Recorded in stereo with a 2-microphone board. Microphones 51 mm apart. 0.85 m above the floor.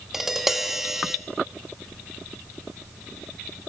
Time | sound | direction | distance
0.1 | tapping | 5° right (ahead or behind) | 1.6 m